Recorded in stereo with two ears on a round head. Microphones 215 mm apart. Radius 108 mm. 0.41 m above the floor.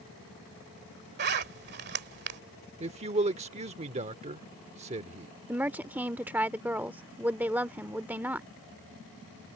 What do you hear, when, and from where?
1.2 s a zipper: 45° right (ahead or behind)
2.8 s a man speaking: 25° right (ahead or behind)
5.5 s a woman speaking: 5° right (ahead or behind)